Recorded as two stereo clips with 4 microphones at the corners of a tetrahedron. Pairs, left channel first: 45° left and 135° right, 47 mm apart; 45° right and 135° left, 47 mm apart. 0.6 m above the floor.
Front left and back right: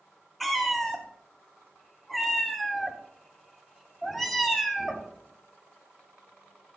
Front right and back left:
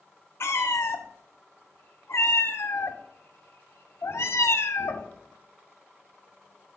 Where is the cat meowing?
40° right, 0.7 m.